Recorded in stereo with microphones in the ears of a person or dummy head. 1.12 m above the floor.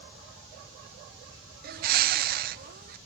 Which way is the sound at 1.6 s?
45° right (ahead or behind).